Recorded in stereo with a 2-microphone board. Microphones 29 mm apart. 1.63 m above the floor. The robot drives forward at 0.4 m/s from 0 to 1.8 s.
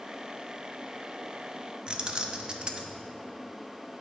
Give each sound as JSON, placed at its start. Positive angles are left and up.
{"t": 1.9, "sound": "keys jangling", "side_deg": -30, "distance_m": 0.6}